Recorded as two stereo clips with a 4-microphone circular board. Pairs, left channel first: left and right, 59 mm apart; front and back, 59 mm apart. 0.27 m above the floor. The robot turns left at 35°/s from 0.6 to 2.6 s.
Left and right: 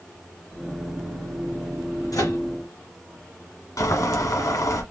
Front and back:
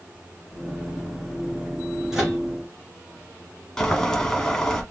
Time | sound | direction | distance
2.1 | a microwave | 100° left | 3.5 m
3.8 | boiling | 80° left | 1.4 m